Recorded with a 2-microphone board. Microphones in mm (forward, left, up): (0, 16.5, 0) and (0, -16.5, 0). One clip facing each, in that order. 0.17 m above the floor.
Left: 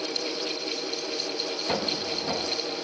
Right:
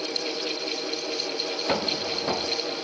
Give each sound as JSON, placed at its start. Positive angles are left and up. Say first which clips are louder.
{"t": 1.7, "sound": "footsteps", "louder": "right 2 dB", "side_deg": -30, "distance_m": 1.2}